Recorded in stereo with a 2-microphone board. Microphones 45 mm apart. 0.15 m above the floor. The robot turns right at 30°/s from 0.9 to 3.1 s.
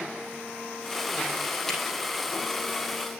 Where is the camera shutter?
5° left (ahead or behind), 4.5 m; by 1.8 s 10° left (ahead or behind), 4.5 m.